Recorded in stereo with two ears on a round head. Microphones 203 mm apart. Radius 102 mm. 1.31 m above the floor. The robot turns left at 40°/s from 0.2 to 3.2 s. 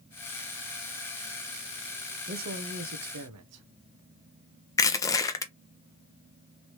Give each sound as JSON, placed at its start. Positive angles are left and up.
{"t": 2.3, "sound": "a man speaking", "azimuth_deg": -35, "distance_m": 0.6}
{"t": 4.8, "sound": "crushing", "side_deg": 15, "distance_m": 0.6}